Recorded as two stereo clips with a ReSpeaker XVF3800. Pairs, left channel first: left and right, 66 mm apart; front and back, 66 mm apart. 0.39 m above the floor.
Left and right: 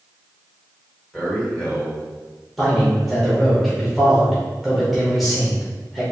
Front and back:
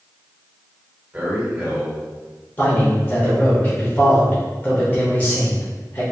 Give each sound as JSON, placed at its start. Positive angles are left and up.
{"t": 1.1, "sound": "a man speaking", "azimuth_deg": 135, "distance_m": 1.3}
{"t": 2.6, "sound": "a man speaking", "azimuth_deg": 0, "distance_m": 0.9}